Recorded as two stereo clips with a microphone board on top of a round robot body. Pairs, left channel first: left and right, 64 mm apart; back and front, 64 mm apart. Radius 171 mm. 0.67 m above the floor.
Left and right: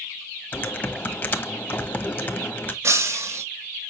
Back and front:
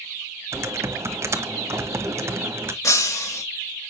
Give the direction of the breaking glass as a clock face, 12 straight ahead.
5 o'clock.